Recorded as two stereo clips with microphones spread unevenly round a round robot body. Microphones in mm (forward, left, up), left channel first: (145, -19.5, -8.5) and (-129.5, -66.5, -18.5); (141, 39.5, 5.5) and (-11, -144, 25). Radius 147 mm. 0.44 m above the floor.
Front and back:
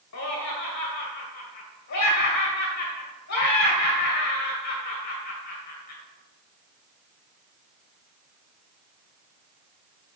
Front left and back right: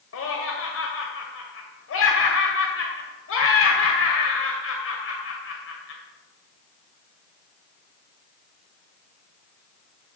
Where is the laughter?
40° left, 2.0 m.